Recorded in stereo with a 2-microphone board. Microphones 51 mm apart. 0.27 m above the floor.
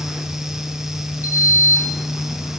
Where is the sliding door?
50° left (ahead or behind), 0.8 m.